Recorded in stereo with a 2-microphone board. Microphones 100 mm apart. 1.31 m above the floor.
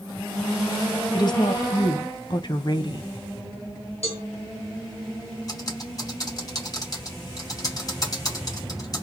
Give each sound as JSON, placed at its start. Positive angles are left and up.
{"t": 1.1, "sound": "a woman speaking", "side_deg": 45, "distance_m": 0.8}
{"t": 4.0, "sound": "a cowbell", "side_deg": 80, "distance_m": 1.3}
{"t": 5.5, "sound": "typing on a keyboard", "side_deg": 40, "distance_m": 1.7}